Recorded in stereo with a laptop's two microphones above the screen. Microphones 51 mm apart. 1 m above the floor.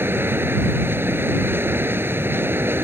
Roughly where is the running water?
Right.